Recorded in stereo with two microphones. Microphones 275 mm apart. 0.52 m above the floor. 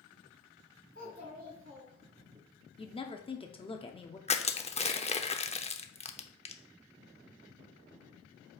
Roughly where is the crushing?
Left.